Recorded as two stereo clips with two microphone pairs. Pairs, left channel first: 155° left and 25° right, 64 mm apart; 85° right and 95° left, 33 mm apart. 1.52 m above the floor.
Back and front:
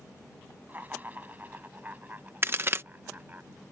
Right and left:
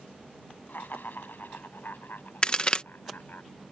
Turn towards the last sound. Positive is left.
turn(degrees=-45)